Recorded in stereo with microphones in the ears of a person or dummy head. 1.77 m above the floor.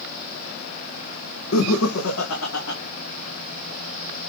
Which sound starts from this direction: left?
Laughter, at 1.5 s.